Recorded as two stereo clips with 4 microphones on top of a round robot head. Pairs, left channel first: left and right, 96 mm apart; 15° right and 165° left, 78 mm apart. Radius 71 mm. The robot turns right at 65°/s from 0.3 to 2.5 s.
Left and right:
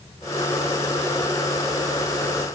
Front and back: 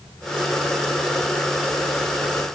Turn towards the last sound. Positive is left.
No sound to turn to.